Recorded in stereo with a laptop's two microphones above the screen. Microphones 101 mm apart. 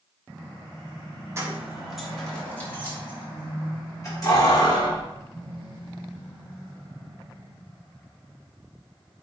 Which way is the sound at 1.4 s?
30° right (ahead or behind).